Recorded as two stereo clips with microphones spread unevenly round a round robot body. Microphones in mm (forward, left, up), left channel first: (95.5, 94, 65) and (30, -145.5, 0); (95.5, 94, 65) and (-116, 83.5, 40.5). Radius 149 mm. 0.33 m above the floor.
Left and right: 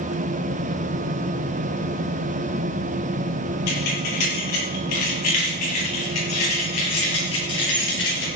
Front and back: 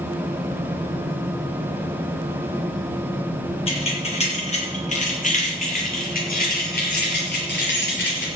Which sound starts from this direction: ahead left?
Keys jangling, at 3.7 s.